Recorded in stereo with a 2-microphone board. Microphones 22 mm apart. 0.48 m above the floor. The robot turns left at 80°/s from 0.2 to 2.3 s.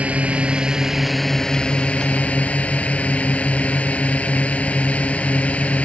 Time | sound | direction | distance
0.0 | a drone | 110° right | ?